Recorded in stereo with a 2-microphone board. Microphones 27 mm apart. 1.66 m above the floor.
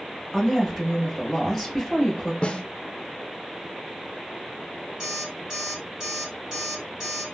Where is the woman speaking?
5° right (ahead or behind), 2.0 m.